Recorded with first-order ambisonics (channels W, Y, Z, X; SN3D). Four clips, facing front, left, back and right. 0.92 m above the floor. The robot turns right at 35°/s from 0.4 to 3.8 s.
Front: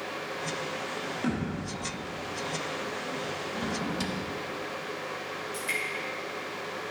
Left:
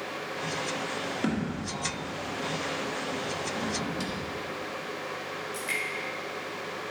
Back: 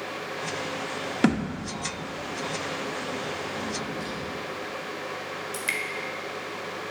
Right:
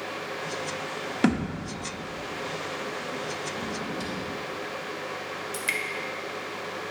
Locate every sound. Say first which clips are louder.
1.2 s a thud: right 8 dB, back 9 dB; 145° right, 0.9 m; by 1.7 s 130° right, 0.9 m
3.5 s a drawer: left 1 dB, even; 10° left, 1.2 m; by 4.2 s 15° left, 1.2 m
5.5 s dripping: right 3 dB, back 3 dB; 135° right, 1.4 m